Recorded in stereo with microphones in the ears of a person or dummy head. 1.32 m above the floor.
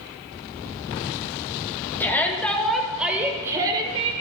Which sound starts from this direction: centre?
A shout, at 2.0 s.